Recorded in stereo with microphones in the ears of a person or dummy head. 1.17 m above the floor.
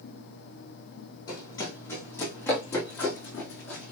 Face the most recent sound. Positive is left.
turn(degrees=5)  # may be behind; listen again after turning